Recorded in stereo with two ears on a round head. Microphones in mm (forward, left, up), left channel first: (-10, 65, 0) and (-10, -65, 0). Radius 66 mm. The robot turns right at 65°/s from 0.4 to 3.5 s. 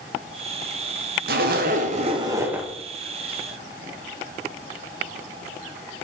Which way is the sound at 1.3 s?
95° right.